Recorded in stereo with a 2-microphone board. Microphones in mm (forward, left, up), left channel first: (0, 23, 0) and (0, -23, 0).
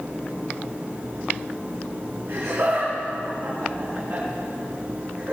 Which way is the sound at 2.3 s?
65° right (ahead or behind).